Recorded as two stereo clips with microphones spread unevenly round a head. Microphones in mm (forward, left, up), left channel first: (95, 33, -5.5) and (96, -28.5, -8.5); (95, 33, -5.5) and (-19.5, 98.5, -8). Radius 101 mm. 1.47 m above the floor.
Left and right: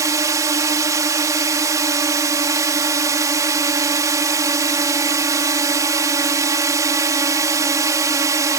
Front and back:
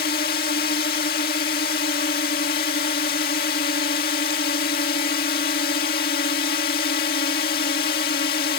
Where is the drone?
65° right.